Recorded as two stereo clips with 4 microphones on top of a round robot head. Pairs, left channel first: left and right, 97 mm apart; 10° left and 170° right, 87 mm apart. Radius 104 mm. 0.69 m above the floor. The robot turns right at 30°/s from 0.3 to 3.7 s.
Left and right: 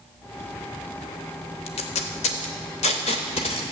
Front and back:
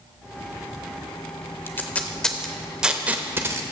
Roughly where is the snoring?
I don't hear snoring.